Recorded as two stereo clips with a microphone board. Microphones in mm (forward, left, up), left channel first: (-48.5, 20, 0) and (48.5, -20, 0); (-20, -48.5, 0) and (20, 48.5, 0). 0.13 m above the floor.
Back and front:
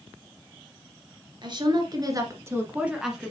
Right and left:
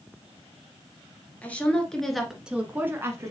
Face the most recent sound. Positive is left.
turn(degrees=75)